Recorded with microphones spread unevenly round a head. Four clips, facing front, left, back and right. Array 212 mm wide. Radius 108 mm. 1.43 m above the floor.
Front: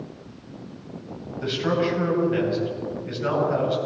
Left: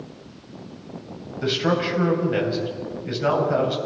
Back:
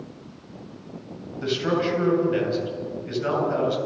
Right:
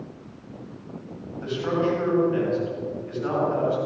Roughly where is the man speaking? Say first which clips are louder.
Left 2 dB, even; left.